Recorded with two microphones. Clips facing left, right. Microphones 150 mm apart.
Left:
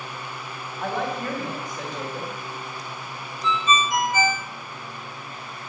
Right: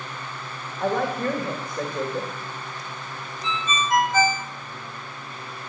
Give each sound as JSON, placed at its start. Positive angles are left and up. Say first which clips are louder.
{"t": 0.8, "sound": "a woman speaking", "louder": "right 4 dB", "side_deg": -55, "distance_m": 2.0}
{"t": 3.4, "sound": "a ringtone", "louder": "left 4 dB", "side_deg": -60, "distance_m": 1.5}